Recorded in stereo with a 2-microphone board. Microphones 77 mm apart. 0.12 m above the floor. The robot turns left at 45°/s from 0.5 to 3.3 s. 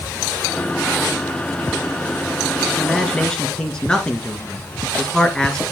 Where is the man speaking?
5° right (ahead or behind), 1.8 m; by 5.7 s 10° left (ahead or behind), 1.8 m.